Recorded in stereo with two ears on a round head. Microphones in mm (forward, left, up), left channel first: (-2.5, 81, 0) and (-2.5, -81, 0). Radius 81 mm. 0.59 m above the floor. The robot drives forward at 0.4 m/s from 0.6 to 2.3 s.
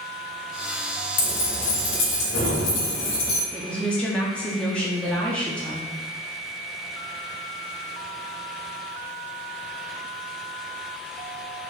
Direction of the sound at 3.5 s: 5° left (ahead or behind).